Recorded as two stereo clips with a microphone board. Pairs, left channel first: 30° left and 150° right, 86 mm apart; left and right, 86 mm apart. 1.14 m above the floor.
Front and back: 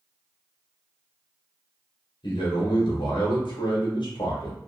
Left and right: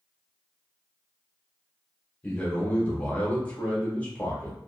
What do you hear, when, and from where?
2.2 s a man speaking: 20° left, 1.1 m